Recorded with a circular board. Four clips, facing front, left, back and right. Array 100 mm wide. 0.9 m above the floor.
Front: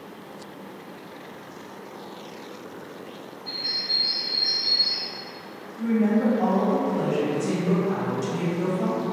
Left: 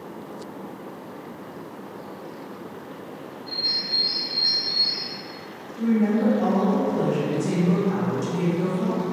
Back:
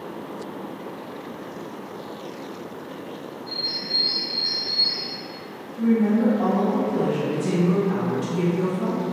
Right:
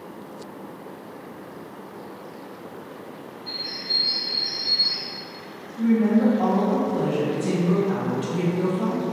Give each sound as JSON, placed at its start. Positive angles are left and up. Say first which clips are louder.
{"t": 3.5, "sound": "a bird", "louder": "left 1 dB, back 4 dB", "azimuth_deg": -35, "distance_m": 0.6}
{"t": 5.8, "sound": "a woman speaking", "louder": "right 2 dB, back 2 dB", "azimuth_deg": -120, "distance_m": 0.7}